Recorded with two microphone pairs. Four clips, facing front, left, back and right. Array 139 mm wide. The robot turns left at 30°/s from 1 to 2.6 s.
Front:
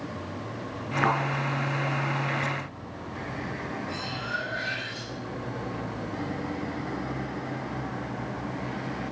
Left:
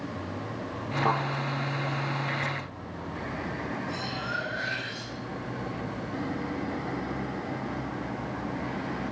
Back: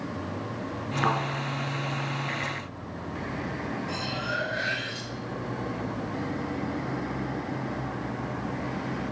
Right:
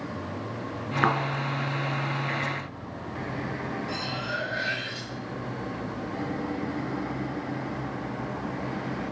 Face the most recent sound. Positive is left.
turn(degrees=-155)